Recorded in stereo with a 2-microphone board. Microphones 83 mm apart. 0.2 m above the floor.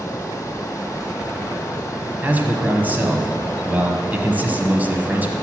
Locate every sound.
0.0 s running water: 40° left (ahead or behind), 1.2 m
2.2 s a man speaking: 20° right (ahead or behind), 1.0 m